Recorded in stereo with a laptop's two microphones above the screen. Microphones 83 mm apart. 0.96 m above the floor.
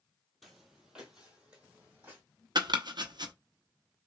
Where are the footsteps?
Centre (ahead or behind), 1.3 m; by 2.2 s 20° right (ahead or behind), 2 m.